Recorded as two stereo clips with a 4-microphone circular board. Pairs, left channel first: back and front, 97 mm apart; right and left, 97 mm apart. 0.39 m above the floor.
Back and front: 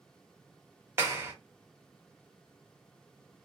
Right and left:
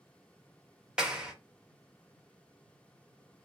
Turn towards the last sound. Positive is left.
turn(degrees=20)